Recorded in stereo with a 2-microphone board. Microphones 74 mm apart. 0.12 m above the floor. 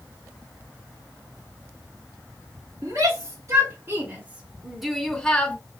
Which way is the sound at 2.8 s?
45° right (ahead or behind).